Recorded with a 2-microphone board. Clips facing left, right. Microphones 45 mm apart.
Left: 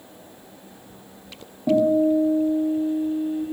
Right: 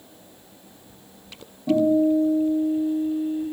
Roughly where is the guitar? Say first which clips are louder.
Left 1 dB; left.